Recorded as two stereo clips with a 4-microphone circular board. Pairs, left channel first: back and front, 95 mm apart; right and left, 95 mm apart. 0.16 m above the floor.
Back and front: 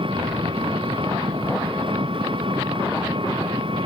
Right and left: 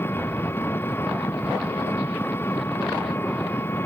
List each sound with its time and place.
0.0 s an engine running: 25° right